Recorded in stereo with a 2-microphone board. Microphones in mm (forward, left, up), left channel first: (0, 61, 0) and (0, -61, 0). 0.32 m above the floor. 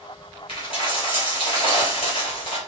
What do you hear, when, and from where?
0.5 s a dropped coin: 45° left (ahead or behind), 2.5 m